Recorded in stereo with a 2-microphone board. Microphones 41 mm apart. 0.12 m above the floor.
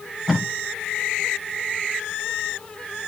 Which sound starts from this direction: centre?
Tape being pulled, at 0.3 s.